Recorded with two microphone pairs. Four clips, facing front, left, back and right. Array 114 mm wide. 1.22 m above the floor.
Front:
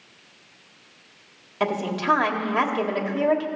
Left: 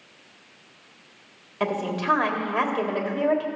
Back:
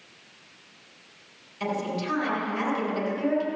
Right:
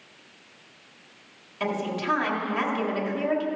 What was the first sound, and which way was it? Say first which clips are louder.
A woman speaking: left 2 dB, front 4 dB; 35° left.